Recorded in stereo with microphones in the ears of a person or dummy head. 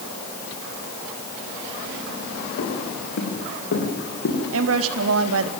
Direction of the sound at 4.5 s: 85° right.